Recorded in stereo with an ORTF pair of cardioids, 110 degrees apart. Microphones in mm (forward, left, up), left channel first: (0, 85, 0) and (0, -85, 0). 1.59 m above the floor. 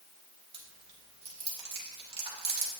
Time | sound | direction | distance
0.5 | chewing | 35° right | 2.5 m